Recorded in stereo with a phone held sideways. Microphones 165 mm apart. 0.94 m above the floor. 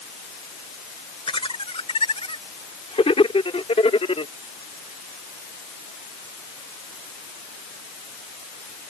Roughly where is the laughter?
Left.